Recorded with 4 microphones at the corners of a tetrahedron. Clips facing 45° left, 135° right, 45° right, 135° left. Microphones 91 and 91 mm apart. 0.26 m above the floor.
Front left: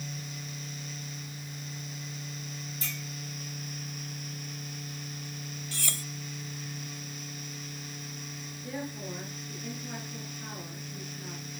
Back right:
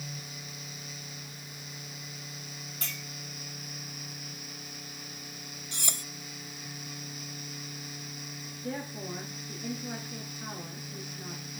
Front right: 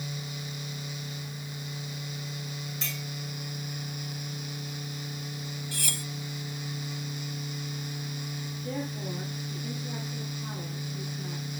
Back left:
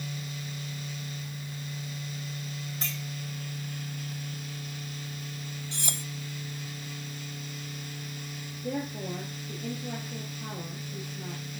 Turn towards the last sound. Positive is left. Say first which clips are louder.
# back right 1 dB, back left 2 dB
turn(degrees=160)